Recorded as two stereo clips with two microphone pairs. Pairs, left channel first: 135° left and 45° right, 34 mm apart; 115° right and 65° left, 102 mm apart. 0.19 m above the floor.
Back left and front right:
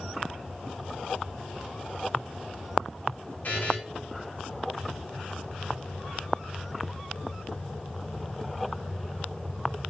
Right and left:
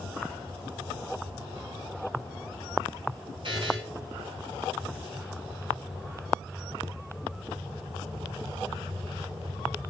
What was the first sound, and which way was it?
A buzzer, 100° left.